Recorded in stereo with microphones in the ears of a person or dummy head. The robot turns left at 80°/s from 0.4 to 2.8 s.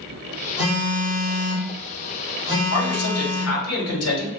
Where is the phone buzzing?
10° right, 1.1 m; by 3.6 s 170° left, 1.1 m.